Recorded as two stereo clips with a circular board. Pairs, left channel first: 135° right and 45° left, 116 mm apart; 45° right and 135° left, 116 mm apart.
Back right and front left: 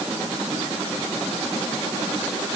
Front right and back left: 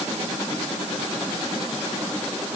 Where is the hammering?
I don't hear hammering.